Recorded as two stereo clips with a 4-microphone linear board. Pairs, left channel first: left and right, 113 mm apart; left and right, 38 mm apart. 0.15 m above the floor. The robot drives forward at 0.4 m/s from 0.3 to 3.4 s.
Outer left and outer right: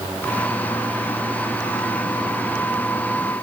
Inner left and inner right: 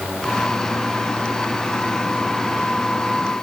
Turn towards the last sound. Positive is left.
No sound to turn to.